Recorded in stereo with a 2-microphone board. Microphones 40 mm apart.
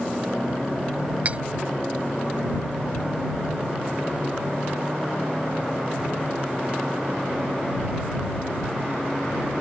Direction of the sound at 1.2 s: 40° right (ahead or behind).